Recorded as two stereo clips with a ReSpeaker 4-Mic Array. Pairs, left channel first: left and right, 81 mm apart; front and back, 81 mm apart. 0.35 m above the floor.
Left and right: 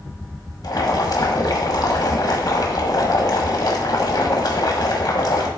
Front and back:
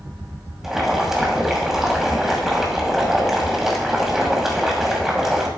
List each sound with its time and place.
0.6 s boiling: 95° left, 2 m